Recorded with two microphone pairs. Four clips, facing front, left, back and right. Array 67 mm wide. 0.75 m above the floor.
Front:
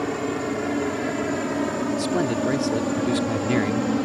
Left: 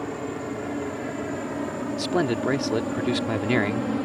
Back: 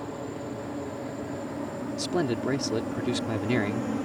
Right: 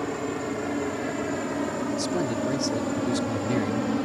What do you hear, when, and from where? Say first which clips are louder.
0.0 s a helicopter: right 2 dB, front 9 dB; 15° right; by 4.1 s 10° right
2.0 s a man speaking: left 7 dB, front 1 dB; 80° left